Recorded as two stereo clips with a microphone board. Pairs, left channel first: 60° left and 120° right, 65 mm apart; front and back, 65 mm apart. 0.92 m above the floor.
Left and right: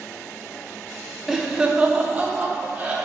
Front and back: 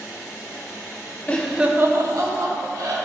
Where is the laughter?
35° right, 0.8 m; by 2.9 s 170° left, 2.5 m.